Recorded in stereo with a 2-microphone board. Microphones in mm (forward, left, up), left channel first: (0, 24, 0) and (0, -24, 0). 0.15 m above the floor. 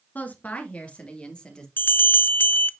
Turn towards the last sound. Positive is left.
turn(degrees=45)  # may be behind; listen again after turning